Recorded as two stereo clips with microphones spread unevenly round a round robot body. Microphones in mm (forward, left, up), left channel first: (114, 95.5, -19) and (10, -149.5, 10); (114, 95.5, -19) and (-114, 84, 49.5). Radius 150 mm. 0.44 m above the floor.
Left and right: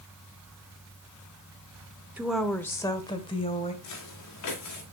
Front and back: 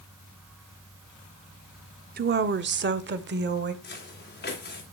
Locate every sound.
2.2 s a woman speaking: 155° left, 0.9 m; by 3.7 s 135° left, 1.9 m
3.8 s footsteps: 45° left, 4.5 m